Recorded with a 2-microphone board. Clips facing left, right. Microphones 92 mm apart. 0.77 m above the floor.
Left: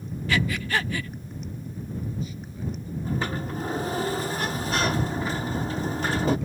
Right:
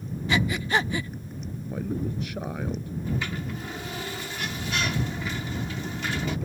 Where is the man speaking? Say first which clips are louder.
Right 7 dB; 65° right (ahead or behind).